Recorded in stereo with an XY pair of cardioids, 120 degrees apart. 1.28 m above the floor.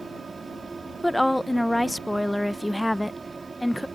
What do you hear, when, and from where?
0.0 s a fan: 25° right
1.0 s a woman speaking: straight ahead